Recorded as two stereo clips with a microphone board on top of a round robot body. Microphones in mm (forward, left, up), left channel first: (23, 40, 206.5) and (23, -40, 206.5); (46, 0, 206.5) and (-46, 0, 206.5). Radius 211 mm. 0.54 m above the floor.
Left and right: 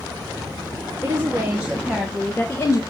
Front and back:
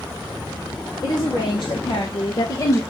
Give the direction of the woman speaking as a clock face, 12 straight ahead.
1 o'clock.